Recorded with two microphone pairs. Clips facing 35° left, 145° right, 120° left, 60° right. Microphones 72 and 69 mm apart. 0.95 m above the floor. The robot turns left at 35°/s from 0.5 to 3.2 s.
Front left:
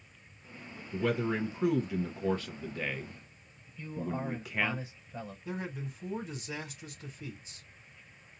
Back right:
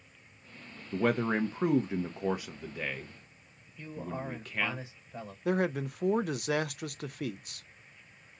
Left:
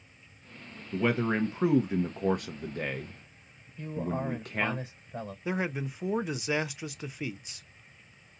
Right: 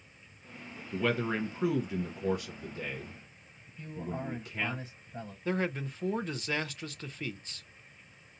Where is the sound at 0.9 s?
165° right, 0.7 m; by 4.8 s 115° left, 0.7 m.